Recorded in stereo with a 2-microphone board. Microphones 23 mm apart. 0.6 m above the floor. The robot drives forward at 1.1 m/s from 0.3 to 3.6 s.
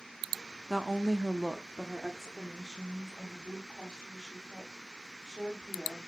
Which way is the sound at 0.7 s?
20° right (ahead or behind).